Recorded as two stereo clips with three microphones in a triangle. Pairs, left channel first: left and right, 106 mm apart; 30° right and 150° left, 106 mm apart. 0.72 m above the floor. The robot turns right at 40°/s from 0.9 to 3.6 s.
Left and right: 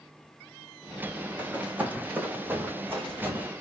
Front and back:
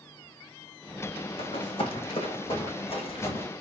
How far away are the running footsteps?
About 1.8 m.